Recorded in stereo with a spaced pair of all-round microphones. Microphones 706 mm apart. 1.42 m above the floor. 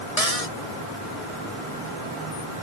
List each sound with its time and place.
0.2 s a cupboard door: 55° left (ahead or behind)